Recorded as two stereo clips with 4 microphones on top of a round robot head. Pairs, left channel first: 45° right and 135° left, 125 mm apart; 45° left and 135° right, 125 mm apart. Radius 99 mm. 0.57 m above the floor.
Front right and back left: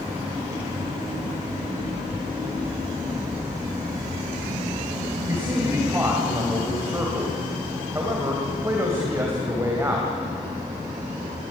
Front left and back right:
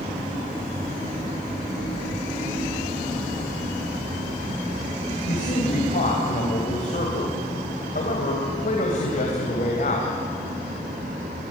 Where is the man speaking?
65° left, 3.5 m.